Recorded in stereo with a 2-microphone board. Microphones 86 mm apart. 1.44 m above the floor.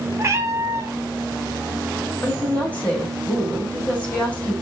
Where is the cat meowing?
35° right (ahead or behind), 0.7 m.